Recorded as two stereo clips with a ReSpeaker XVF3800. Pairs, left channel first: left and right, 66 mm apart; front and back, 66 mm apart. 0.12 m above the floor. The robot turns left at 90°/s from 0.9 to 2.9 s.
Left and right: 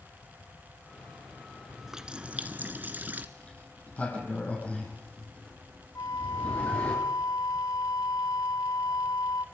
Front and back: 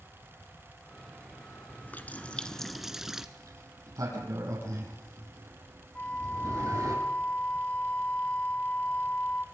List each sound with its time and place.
1.7 s a running tap: 5° left, 1.1 m; by 3.3 s 105° right, 1.1 m
3.4 s a sliding door: 160° left, 5 m
6.0 s a flute: 65° left, 1.0 m